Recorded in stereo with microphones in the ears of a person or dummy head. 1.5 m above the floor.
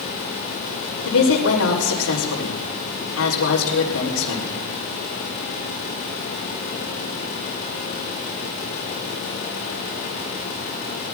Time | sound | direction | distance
1.1 | a woman speaking | 90° left | 4.5 m